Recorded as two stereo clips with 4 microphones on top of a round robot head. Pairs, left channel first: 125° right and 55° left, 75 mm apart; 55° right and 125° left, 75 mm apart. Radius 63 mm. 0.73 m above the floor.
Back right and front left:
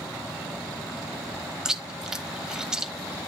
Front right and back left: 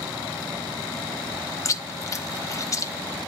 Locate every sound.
1.6 s chewing: 25° right, 1.1 m